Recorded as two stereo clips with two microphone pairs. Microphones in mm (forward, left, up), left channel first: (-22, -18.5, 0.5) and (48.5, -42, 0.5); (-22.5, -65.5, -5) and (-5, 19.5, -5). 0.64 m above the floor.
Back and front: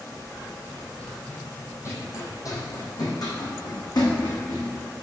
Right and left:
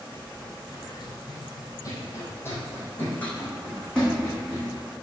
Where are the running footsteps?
110° right, 1.8 m; by 4.7 s 175° left, 3 m.